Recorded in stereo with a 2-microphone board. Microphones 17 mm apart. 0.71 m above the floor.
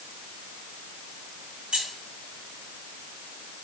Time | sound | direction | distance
1.7 | keys jangling | 80° right | 2.5 m